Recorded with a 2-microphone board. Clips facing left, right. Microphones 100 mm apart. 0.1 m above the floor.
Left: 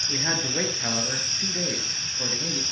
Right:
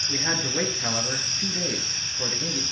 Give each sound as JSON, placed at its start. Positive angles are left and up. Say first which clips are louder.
{"t": 0.1, "sound": "a man speaking", "louder": "even", "side_deg": 5, "distance_m": 1.9}